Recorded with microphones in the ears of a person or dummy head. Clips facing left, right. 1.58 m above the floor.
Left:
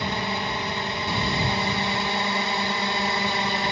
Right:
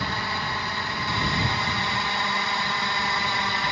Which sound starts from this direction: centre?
A drone, at 0.0 s.